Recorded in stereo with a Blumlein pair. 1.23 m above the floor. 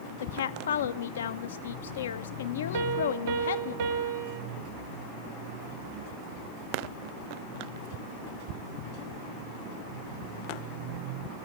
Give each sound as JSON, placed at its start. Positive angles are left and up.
{"t": 0.2, "sound": "a woman speaking", "azimuth_deg": 65, "distance_m": 0.7}
{"t": 2.7, "sound": "a piano", "azimuth_deg": -50, "distance_m": 1.0}